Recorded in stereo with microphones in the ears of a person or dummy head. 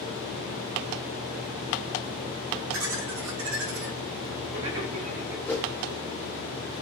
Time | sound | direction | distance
2.7 | laughter | 65° right (ahead or behind) | 1.8 m
5.5 | a whoosh | 5° left (ahead or behind) | 0.6 m